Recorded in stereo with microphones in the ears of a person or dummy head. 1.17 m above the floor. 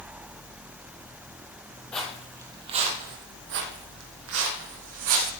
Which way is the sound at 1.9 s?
5° left (ahead or behind).